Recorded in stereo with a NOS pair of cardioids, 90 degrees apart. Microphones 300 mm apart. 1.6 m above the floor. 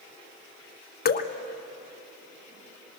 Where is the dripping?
35° left, 1.4 m.